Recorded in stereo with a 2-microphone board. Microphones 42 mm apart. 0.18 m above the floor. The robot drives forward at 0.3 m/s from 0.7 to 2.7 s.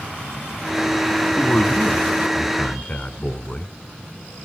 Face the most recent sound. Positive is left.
turn(degrees=30)  # may be behind; listen again after turning